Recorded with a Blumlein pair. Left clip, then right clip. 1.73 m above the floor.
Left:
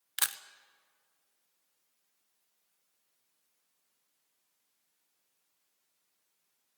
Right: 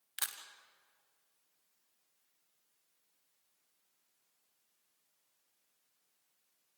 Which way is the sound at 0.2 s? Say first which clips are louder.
Left 7 dB; 70° left.